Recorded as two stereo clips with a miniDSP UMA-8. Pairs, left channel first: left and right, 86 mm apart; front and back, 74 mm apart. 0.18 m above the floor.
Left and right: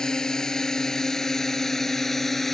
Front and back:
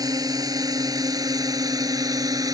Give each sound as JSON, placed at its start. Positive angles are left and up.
{"t": 0.0, "sound": "a drone", "azimuth_deg": 170}